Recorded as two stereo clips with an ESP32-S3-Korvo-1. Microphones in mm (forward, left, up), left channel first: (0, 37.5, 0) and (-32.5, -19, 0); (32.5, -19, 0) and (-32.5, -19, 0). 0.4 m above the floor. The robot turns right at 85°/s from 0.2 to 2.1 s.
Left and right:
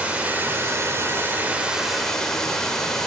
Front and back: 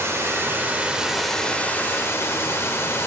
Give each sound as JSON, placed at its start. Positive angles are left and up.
{"t": 0.0, "sound": "running water", "azimuth_deg": 180, "distance_m": 1.0}